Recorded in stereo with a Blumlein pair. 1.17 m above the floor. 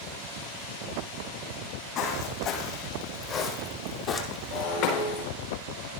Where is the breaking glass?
45° left, 4.5 m.